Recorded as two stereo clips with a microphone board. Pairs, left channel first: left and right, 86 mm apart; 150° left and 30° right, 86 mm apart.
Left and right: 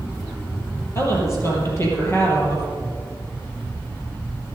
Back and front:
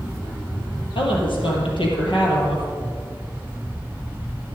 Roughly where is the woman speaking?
Behind left.